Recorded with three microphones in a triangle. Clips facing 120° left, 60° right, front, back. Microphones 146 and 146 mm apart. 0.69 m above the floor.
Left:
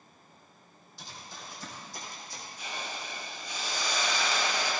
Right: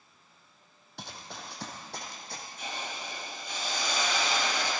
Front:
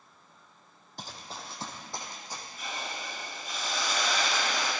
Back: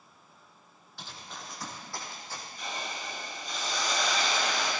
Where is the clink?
No clink in this recording.